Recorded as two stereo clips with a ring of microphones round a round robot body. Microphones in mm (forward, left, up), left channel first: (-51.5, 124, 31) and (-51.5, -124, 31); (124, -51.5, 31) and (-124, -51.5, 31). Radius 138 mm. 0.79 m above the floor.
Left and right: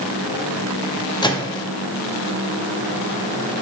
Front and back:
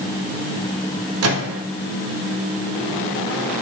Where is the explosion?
No explosion in this recording.